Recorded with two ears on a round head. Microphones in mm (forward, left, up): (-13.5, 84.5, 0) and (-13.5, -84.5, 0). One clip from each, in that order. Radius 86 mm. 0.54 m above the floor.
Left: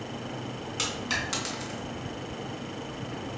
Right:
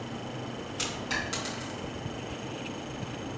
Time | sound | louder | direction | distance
0.8 | a dropped coin | left 2 dB | 20° left (ahead or behind) | 3 m